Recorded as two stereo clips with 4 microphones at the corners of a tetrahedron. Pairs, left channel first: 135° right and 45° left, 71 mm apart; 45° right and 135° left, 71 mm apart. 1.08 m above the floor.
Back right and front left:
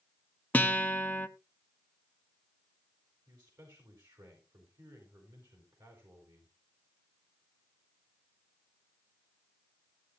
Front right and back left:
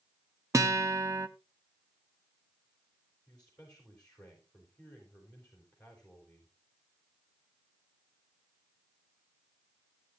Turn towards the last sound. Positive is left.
turn(degrees=35)